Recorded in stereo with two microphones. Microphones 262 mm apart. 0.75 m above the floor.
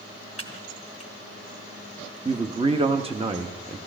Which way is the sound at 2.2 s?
20° right (ahead or behind).